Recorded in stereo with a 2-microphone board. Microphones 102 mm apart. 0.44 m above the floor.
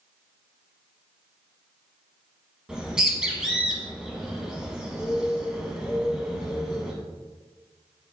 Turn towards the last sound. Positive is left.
turn(degrees=-5)  # may be behind; listen again after turning